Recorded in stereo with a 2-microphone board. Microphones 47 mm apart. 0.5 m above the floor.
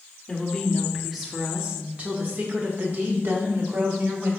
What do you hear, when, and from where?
0.3 s a woman speaking: 20° left (ahead or behind), 1.2 m; by 4.3 s 50° right (ahead or behind), 2.5 m